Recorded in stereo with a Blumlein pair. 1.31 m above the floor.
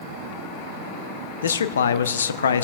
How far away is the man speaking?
About 0.7 m.